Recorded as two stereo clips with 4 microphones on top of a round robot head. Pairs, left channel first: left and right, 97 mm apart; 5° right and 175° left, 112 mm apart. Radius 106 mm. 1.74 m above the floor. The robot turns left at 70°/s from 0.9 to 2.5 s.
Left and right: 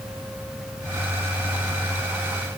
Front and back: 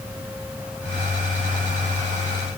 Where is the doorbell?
I don't hear a doorbell.